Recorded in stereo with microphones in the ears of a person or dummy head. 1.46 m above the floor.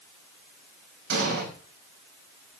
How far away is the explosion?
About 5 m.